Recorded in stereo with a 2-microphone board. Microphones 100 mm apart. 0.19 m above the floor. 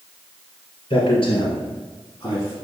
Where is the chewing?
I don't hear chewing.